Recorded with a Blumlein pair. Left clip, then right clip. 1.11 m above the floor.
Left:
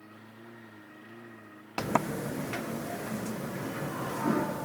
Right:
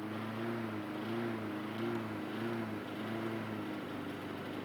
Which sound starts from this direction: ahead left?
A sliding door, at 1.8 s.